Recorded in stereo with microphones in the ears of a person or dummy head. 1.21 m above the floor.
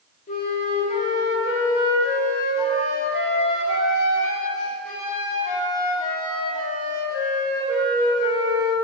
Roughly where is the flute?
Left.